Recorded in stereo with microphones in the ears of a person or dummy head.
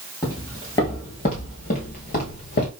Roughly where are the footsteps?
Centre.